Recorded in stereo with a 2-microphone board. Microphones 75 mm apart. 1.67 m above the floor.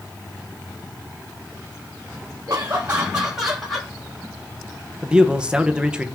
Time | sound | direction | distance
2.5 | laughter | 40° right (ahead or behind) | 1.6 m
5.0 | a man speaking | 15° right (ahead or behind) | 1.0 m